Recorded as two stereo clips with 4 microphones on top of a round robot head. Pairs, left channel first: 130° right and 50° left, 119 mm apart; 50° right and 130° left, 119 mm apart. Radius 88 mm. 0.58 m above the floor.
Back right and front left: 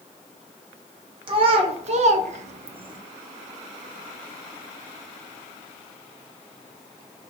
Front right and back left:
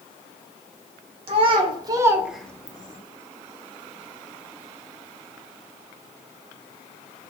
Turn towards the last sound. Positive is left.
turn(degrees=-5)